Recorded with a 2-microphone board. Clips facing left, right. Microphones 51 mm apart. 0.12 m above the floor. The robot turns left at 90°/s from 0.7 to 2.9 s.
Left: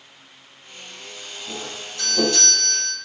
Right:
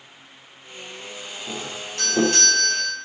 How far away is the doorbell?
About 4.5 m.